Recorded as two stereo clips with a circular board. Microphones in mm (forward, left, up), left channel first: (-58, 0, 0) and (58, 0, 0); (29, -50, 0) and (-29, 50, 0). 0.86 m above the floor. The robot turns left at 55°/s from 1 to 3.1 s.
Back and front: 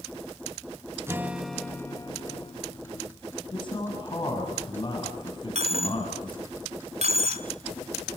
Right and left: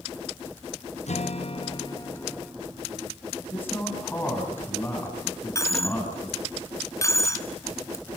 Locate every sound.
1.1 s a guitar: 65° right, 0.6 m; by 2.5 s 145° right, 0.6 m
3.5 s a man speaking: 130° right, 7.5 m
5.5 s a dropped coin: straight ahead, 1.5 m